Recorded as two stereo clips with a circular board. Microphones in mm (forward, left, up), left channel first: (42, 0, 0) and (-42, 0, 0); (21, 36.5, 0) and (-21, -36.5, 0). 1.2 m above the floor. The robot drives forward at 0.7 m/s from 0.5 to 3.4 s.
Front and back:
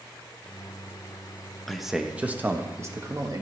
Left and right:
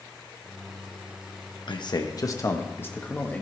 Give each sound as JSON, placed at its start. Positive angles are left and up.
{"t": 1.7, "sound": "a man speaking", "azimuth_deg": 90, "distance_m": 1.2}